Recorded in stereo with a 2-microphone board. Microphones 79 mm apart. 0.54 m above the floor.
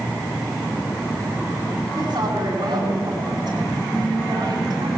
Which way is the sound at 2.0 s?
65° right (ahead or behind).